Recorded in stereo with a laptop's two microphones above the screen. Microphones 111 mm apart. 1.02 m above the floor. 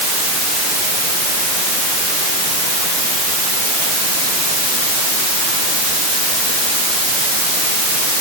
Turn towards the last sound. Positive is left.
No sound to turn to.